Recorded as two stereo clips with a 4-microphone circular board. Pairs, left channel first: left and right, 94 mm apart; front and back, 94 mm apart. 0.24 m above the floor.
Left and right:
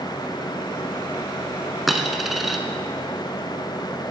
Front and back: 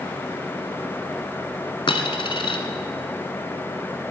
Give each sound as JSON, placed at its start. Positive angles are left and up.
{"t": 1.9, "sound": "a dropped coin", "azimuth_deg": 0, "distance_m": 1.1}